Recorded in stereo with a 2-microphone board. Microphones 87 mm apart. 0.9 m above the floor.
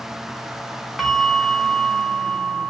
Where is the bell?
Centre (ahead or behind), 1.0 m.